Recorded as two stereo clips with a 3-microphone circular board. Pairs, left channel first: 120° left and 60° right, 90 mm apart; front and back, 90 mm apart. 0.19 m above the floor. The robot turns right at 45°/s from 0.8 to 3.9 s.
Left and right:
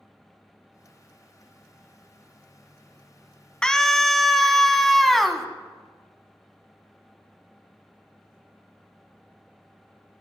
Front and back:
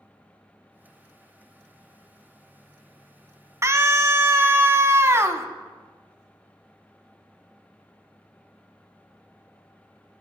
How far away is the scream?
About 1.2 m.